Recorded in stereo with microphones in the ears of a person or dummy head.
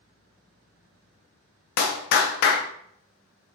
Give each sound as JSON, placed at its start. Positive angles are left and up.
{"t": 1.8, "sound": "a clap", "side_deg": 55, "distance_m": 0.5}